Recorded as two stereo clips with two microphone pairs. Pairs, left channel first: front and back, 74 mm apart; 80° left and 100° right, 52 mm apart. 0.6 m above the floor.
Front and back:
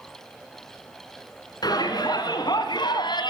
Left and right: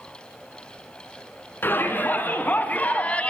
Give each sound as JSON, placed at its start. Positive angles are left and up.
{"t": 1.6, "sound": "a shout", "azimuth_deg": 30, "distance_m": 5.5}